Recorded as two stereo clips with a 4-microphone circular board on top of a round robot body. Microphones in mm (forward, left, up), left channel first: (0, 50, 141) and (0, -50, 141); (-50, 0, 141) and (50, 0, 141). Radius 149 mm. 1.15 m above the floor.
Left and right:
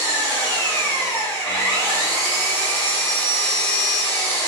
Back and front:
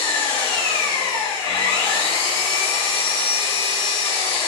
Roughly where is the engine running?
Behind left.